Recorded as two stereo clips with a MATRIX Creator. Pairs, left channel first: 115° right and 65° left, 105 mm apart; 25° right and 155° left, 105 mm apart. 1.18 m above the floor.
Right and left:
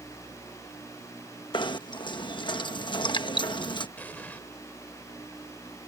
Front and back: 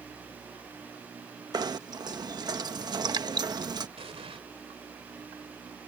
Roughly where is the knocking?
Behind right.